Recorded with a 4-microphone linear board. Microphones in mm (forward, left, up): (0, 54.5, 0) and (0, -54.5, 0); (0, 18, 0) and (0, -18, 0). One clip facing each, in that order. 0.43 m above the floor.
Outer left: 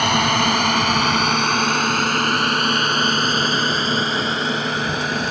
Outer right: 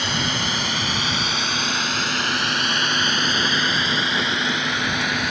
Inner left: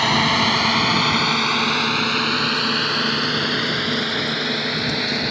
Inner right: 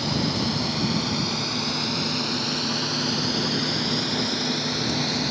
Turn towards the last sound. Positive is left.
turn(degrees=35)  # may be behind; listen again after turning